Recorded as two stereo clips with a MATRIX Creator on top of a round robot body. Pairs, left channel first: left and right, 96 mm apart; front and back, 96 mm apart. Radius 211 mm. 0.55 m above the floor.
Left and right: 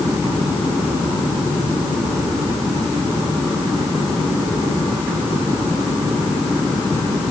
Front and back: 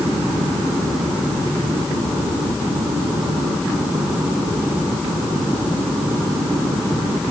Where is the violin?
No violin in this recording.